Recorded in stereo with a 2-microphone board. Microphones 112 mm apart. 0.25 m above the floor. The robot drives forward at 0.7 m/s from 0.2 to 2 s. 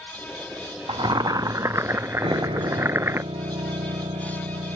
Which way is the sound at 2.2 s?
55° right (ahead or behind).